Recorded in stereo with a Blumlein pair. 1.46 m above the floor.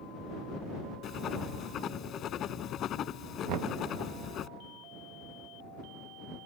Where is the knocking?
40° right.